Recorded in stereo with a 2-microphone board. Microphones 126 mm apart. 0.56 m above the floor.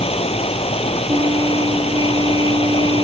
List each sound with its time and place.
0.0 s running water: 55° left (ahead or behind)
1.1 s a trumpet: 30° right (ahead or behind)